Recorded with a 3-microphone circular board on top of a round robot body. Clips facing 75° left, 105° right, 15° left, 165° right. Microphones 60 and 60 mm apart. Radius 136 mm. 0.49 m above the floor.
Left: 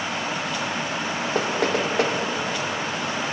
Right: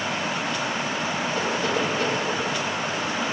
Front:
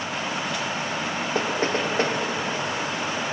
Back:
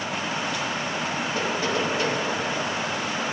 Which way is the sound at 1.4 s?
60° left.